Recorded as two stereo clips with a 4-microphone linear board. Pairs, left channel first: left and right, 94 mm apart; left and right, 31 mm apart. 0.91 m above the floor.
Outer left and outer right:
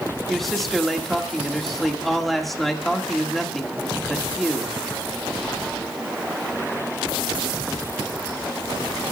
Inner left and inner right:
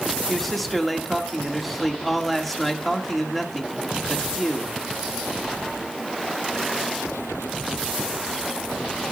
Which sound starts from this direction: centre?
A man speaking, at 0.3 s.